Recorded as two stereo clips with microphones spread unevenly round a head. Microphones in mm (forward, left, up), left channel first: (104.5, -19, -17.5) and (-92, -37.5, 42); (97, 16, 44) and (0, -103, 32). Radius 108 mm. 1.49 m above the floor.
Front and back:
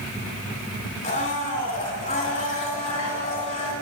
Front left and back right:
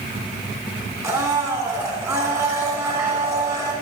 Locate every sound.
1.0 s a blender: 55° right, 3 m